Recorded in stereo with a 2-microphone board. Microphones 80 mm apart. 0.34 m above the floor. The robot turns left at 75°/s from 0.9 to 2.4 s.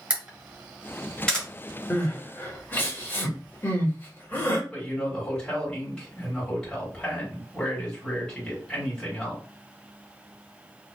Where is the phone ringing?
No phone ringing in this recording.